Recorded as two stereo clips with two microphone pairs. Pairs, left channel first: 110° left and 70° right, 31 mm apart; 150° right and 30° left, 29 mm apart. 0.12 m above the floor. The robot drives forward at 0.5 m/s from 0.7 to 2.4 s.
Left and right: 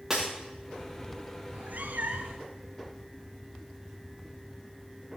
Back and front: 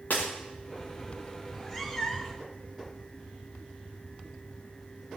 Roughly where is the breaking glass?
Behind right.